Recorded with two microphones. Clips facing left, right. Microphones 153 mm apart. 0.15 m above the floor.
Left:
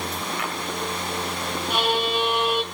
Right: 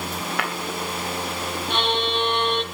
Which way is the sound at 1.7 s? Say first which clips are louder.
Left 1 dB; 5° left (ahead or behind).